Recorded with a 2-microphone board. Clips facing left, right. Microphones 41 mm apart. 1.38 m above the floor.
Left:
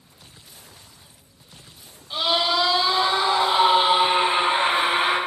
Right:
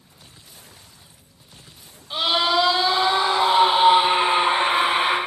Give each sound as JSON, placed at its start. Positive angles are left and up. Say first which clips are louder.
{"t": 2.1, "sound": "a scream", "louder": "right 2 dB", "side_deg": -20, "distance_m": 4.0}